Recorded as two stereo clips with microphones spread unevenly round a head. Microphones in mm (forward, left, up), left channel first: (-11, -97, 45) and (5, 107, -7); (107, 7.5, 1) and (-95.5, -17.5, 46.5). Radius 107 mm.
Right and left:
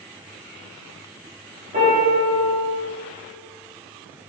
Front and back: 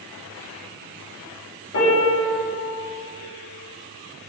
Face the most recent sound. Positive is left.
turn(degrees=35)